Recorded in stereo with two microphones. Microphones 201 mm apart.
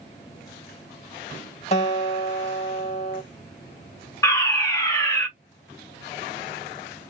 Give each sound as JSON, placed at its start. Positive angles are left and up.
{"t": 1.7, "sound": "a guitar", "side_deg": 35, "distance_m": 1.3}
{"t": 4.2, "sound": "a fire alarm", "side_deg": 15, "distance_m": 1.1}